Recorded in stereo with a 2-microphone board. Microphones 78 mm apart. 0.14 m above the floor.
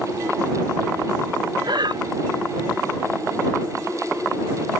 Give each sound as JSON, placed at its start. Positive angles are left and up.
{"t": 1.6, "sound": "breathing", "side_deg": -65}